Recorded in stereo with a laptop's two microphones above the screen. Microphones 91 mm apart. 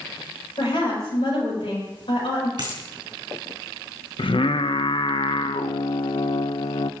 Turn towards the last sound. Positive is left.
turn(degrees=65)  # may be behind; listen again after turning